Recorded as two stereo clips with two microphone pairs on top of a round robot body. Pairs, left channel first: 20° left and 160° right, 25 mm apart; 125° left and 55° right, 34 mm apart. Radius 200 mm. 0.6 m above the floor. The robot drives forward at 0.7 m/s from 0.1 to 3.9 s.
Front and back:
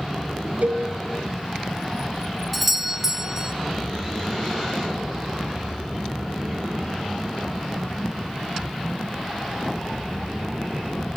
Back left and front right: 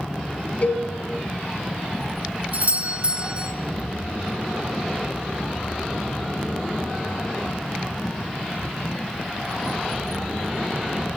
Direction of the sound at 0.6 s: 175° left.